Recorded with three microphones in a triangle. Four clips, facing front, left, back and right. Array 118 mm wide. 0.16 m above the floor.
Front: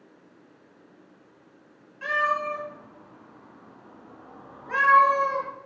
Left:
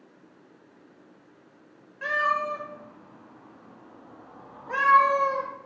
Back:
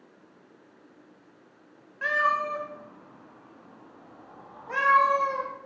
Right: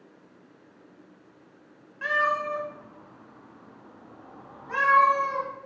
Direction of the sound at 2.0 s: 145° right.